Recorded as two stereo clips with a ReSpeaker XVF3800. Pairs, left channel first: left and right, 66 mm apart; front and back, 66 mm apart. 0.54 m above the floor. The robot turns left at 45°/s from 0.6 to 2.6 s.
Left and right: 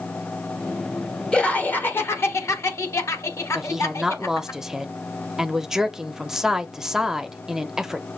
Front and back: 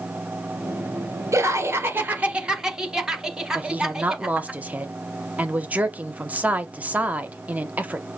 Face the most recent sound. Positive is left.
turn(degrees=-165)